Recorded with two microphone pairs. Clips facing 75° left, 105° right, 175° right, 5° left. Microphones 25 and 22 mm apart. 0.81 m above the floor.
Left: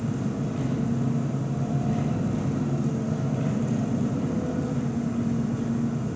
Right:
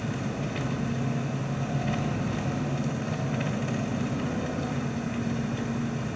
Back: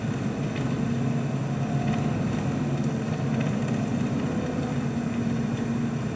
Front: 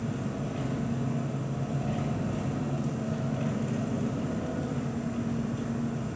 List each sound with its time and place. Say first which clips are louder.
0.0 s an engine running: left 3 dB, back 4 dB; 135° right, 1.4 m